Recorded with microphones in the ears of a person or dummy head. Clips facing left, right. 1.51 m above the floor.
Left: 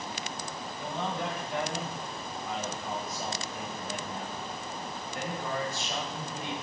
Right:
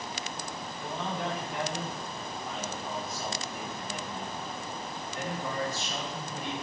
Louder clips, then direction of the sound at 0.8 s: Left 1 dB; 65° left (ahead or behind).